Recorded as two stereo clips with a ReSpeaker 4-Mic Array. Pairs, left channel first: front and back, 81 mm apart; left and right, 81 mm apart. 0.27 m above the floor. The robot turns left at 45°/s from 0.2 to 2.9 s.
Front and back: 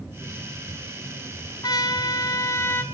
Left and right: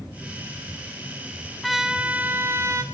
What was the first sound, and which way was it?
A trumpet, straight ahead.